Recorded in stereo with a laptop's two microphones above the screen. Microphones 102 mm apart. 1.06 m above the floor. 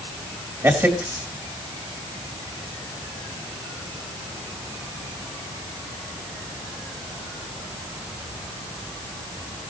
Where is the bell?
I don't hear a bell.